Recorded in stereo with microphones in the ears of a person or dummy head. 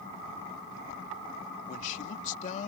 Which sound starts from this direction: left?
A man speaking, at 1.7 s.